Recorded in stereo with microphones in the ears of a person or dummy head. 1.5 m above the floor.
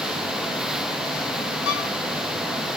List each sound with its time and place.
1.6 s a violin: 70° left (ahead or behind), 3.5 m